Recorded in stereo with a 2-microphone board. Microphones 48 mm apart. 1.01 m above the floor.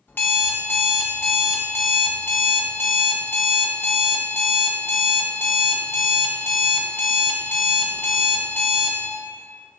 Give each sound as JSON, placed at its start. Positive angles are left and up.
{"t": 0.1, "sound": "an alarm clock", "side_deg": 45, "distance_m": 0.7}